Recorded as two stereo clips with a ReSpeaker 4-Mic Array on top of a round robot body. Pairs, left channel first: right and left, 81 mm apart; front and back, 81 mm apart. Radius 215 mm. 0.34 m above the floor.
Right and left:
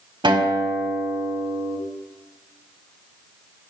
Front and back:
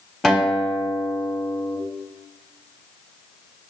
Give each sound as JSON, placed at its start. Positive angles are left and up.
{"t": 0.2, "sound": "a guitar", "azimuth_deg": 85, "distance_m": 3.5}